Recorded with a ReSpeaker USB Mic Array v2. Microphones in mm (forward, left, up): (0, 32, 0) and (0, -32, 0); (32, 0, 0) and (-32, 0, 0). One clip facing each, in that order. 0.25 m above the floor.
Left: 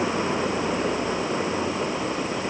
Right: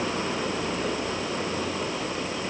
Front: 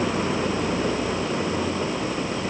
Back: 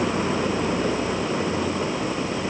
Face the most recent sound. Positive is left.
No sound to turn to.